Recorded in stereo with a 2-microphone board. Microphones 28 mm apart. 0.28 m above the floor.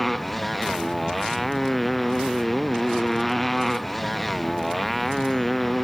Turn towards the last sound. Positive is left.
turn(degrees=5)  # may be behind; listen again after turning